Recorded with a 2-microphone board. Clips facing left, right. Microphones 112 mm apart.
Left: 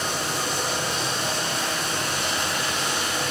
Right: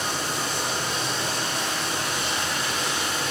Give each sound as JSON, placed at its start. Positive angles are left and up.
{"t": 0.0, "sound": "running water", "side_deg": 75, "distance_m": 2.0}